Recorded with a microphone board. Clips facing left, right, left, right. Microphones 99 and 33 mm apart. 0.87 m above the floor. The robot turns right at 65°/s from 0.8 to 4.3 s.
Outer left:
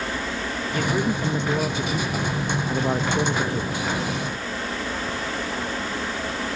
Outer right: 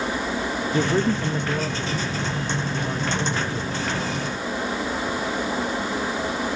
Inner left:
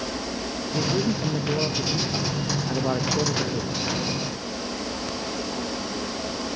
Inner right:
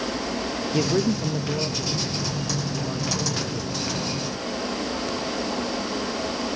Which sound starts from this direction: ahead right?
A man speaking, at 0.7 s.